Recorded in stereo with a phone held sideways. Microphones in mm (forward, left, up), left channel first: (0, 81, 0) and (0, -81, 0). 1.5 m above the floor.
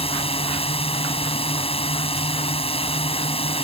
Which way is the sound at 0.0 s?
35° left (ahead or behind).